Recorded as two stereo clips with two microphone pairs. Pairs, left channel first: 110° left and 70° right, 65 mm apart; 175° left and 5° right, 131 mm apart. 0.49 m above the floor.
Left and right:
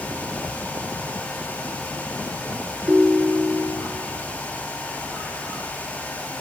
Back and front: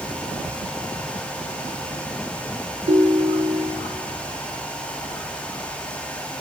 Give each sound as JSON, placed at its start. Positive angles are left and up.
{"t": 2.9, "sound": "a ringtone", "azimuth_deg": -5, "distance_m": 1.1}